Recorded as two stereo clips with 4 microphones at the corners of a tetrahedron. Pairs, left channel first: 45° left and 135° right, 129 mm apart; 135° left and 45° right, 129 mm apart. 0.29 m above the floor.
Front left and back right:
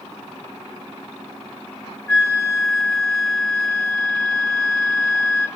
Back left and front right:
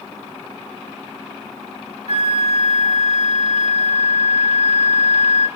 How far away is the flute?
About 1.3 m.